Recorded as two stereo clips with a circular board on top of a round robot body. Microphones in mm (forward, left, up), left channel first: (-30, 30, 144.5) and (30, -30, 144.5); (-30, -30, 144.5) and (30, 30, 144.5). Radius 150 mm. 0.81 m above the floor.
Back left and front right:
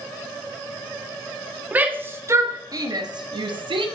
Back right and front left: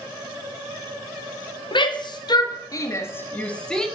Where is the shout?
115° right, 1.8 m; by 3.9 s 50° right, 1.7 m.